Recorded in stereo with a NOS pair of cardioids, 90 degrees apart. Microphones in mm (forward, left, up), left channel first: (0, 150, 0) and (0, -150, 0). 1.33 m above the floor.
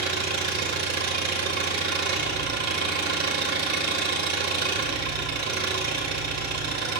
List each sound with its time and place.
0.0 s an engine running: 60° right, 2.5 m